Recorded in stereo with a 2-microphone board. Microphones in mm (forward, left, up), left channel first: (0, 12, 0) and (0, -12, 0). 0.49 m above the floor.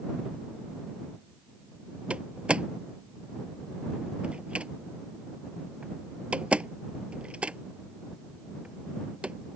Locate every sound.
2.1 s a door slam: 55° right (ahead or behind)